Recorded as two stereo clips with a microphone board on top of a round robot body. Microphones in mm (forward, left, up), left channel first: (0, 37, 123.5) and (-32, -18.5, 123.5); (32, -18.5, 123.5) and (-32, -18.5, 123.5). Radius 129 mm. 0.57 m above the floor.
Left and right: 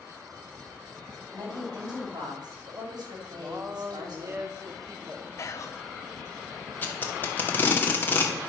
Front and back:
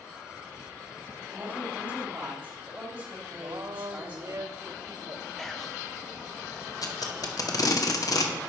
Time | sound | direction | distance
1.3 | a woman speaking | 105° right | 4.5 m
3.3 | a woman speaking | 160° right | 1.8 m
5.4 | whispering | 80° left | 0.9 m
6.8 | tape being pulled | 5° left | 2 m